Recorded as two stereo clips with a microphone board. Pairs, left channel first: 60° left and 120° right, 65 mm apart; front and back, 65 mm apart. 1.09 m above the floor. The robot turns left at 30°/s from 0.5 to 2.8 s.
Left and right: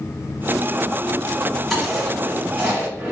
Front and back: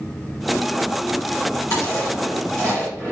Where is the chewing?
25° right, 1.9 m; by 3.1 s 60° right, 1.9 m.